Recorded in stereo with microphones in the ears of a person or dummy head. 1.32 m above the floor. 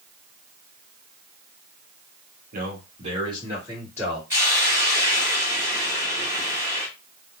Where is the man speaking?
55° right (ahead or behind), 0.9 m; by 4.2 s 10° right (ahead or behind), 1.5 m.